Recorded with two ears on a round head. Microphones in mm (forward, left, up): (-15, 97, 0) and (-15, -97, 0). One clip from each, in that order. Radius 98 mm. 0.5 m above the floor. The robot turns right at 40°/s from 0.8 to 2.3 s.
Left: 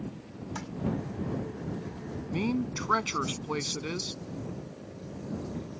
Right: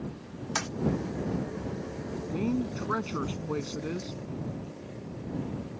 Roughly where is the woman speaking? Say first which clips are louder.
Left 1 dB; left.